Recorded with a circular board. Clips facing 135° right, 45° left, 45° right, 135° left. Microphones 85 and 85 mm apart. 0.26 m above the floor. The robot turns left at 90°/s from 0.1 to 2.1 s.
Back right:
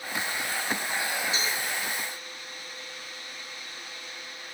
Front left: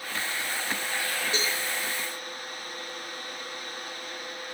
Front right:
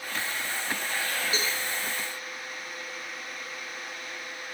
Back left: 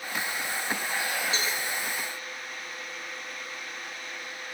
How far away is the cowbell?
About 4.5 m.